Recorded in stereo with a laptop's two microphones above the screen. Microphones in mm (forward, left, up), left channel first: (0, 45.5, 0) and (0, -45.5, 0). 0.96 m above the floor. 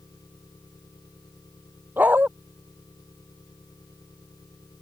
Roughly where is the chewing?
No chewing in this recording.